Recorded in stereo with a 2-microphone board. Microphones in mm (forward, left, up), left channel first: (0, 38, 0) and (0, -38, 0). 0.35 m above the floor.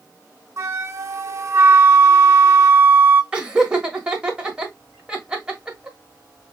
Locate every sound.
0.6 s a flute: 35° right (ahead or behind), 0.5 m
3.3 s laughter: 10° right (ahead or behind), 1.3 m